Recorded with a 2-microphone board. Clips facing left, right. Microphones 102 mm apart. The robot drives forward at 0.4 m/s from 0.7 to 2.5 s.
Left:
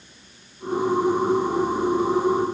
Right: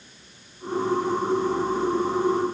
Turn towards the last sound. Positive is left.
No sound to turn to.